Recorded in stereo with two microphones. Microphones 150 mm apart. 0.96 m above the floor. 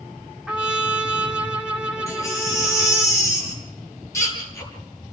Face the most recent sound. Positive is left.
turn(degrees=20)  # may be behind; listen again after turning